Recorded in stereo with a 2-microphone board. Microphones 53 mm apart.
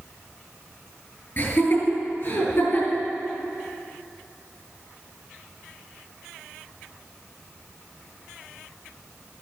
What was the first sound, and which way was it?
Laughter, 45° left (ahead or behind).